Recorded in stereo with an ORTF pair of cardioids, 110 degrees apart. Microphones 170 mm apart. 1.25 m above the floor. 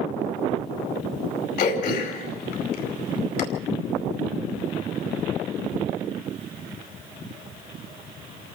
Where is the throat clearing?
60° left, 5 m.